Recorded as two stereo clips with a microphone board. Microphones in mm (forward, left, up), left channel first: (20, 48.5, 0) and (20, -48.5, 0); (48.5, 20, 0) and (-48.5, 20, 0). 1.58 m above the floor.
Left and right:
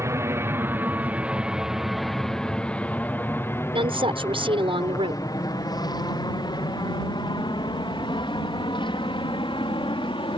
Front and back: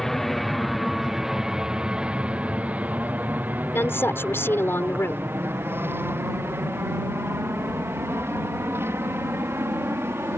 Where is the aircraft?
85° right; by 10.4 s 115° left.